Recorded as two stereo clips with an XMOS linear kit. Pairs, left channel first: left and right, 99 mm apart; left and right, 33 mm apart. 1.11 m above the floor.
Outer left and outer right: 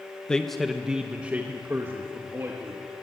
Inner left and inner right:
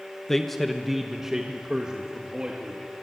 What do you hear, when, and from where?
0.3 s a man speaking: 10° left (ahead or behind), 1.1 m; by 2.8 s 30° right (ahead or behind), 2.5 m